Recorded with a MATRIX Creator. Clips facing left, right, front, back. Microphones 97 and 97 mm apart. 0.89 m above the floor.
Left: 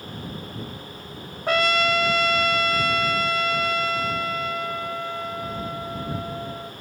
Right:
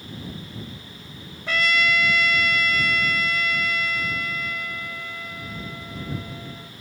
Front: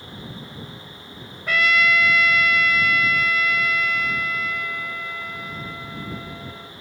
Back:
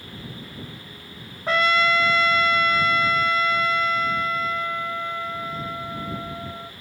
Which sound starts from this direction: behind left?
A trumpet, at 1.5 s.